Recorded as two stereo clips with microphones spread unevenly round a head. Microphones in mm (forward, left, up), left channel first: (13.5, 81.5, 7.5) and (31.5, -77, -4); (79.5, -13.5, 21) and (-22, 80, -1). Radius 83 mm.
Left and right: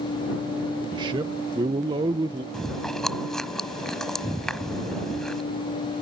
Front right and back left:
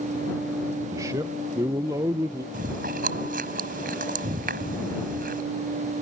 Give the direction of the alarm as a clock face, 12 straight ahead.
I don't hear an alarm.